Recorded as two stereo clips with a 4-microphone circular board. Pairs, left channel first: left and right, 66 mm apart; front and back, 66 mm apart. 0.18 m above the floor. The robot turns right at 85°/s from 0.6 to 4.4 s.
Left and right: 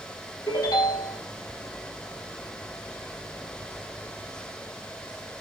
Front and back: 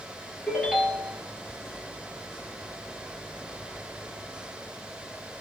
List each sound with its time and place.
0.5 s a ringtone: 85° left, 2 m; by 1.2 s 135° left, 2 m